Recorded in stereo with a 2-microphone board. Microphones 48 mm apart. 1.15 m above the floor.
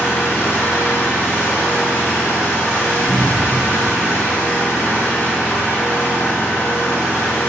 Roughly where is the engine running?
Left.